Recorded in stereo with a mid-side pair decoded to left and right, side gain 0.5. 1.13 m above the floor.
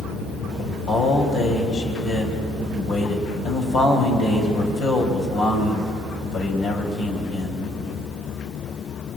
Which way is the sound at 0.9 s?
65° left.